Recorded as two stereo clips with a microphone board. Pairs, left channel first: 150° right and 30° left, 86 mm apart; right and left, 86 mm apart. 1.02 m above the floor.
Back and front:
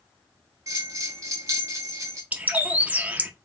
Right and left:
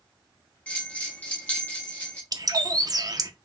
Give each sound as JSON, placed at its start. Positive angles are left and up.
{"t": 0.7, "sound": "a bell", "azimuth_deg": -20, "distance_m": 1.9}
{"t": 2.3, "sound": "a bird", "azimuth_deg": 95, "distance_m": 0.6}